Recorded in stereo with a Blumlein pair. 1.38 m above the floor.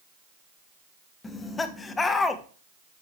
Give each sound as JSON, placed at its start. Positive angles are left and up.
{"t": 1.2, "sound": "laughter", "azimuth_deg": 15, "distance_m": 1.3}